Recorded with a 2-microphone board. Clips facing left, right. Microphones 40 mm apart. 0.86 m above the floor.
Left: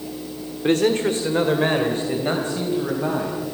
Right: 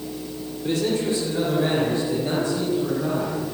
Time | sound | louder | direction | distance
0.6 | a man speaking | left 5 dB | 60° left (ahead or behind) | 2.5 m